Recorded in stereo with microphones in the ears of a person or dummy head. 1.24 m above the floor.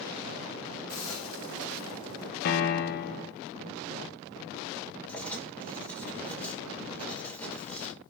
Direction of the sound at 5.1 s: 5° left (ahead or behind).